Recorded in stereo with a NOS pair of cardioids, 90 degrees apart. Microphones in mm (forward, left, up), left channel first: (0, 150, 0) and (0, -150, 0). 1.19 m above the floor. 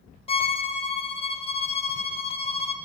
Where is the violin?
20° left, 0.6 m.